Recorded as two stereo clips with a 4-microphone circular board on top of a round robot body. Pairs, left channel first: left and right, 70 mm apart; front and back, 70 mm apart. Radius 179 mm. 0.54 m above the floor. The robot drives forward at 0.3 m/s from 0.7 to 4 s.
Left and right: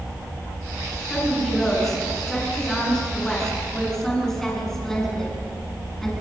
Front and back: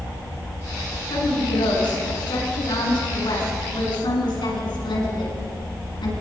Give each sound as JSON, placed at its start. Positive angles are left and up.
{"t": 1.1, "sound": "a woman speaking", "azimuth_deg": 5, "distance_m": 9.0}